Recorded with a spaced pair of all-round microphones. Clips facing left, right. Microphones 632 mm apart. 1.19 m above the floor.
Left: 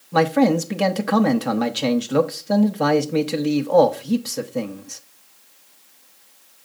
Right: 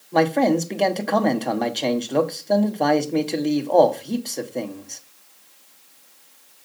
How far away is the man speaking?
About 0.9 m.